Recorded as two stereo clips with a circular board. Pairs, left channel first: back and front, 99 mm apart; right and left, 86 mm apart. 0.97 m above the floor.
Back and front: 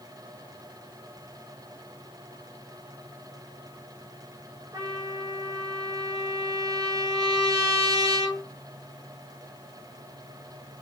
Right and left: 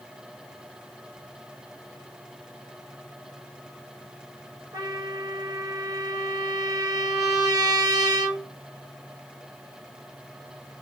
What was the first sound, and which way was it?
A trumpet, 50° left.